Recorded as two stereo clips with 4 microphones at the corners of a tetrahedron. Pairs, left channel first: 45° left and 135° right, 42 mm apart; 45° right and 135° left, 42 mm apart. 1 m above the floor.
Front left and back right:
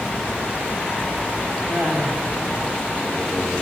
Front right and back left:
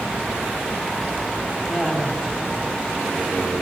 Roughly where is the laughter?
Right.